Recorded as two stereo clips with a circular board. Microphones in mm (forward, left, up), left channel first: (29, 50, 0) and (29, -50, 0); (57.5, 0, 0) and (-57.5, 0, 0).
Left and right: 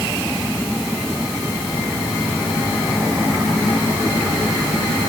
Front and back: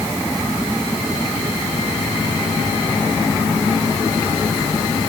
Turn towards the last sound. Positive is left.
No sound to turn to.